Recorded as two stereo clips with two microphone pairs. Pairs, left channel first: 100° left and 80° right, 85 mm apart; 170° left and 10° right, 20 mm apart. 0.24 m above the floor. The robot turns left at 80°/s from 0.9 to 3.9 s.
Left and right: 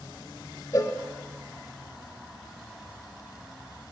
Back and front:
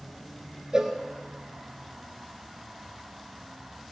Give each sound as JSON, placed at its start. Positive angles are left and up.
{"t": 0.7, "sound": "a cowbell", "azimuth_deg": 45, "distance_m": 0.7}